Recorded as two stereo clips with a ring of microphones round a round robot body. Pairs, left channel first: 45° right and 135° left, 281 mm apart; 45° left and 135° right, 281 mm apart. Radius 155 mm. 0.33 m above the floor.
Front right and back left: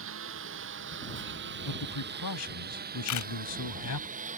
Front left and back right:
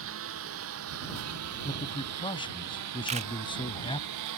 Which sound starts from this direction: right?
A camera shutter, at 3.1 s.